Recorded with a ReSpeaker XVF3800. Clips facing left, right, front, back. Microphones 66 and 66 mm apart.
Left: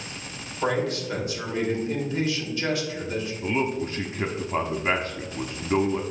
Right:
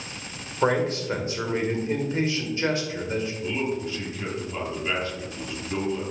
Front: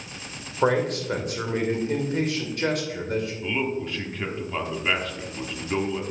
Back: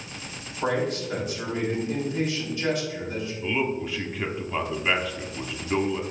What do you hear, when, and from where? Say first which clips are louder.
0.6 s a man speaking: right 3 dB, front 4 dB; 30° right, 1.8 m
3.4 s a man speaking: left 2 dB, even; 95° left, 1.1 m